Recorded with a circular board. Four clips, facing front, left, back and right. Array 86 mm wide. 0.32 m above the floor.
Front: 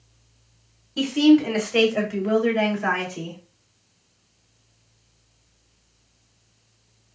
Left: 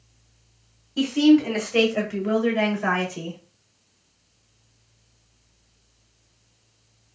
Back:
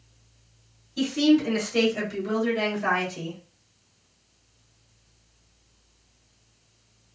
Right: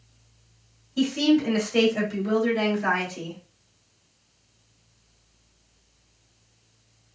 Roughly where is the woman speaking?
Ahead left.